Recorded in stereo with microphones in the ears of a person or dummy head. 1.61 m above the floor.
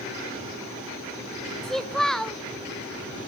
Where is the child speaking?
5° left (ahead or behind), 0.7 m.